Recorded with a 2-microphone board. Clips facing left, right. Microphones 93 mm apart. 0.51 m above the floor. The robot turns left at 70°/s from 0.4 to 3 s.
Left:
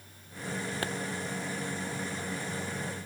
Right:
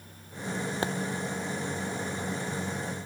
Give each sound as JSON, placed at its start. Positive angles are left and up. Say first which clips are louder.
{"t": 0.8, "sound": "a pop", "louder": "right 5 dB", "side_deg": -20, "distance_m": 1.1}